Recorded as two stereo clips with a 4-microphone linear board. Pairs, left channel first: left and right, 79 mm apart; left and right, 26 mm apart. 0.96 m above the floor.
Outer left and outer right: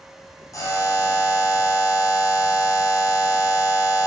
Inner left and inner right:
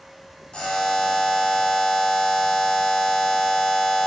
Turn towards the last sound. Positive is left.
turn(degrees=45)  # may be behind; listen again after turning